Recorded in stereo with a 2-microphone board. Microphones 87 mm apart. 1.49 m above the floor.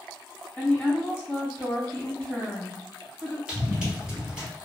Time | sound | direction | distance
0.6 | a woman speaking | 25° left (ahead or behind) | 1.8 m
3.5 | running footsteps | 10° right (ahead or behind) | 1.8 m